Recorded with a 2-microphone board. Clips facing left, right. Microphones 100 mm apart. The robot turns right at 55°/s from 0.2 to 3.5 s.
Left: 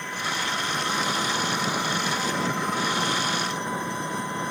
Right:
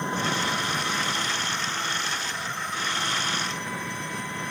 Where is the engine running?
25° right; by 4.5 s 155° left.